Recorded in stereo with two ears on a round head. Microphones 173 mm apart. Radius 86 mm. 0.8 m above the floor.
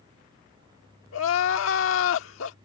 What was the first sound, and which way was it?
Crying, 75° left (ahead or behind).